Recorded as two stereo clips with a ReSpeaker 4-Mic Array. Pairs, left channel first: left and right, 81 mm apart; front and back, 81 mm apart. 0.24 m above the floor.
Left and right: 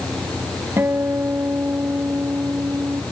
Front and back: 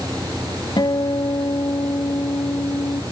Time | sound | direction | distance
0.8 | a guitar | 30° right | ?